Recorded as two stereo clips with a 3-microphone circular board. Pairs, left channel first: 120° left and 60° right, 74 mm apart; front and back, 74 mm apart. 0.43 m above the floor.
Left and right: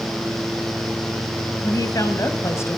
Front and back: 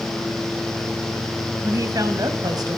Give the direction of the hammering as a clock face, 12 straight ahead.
I don't hear hammering.